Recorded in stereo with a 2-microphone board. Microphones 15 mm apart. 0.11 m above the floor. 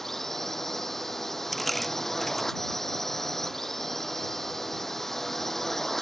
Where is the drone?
20° left (ahead or behind).